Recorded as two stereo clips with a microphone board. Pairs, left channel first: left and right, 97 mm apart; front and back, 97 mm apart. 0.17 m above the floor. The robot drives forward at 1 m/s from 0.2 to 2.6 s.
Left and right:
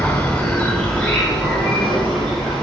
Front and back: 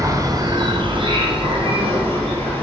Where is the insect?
160° left, 1.0 m; by 2.6 s 175° left, 3 m.